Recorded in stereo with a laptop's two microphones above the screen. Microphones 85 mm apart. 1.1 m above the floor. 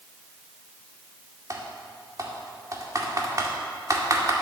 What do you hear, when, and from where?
1.5 s typing on a keyboard: 40° right (ahead or behind), 1.9 m